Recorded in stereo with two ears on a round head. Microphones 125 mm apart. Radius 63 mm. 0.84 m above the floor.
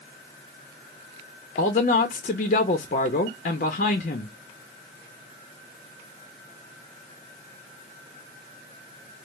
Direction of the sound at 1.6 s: 55° left (ahead or behind).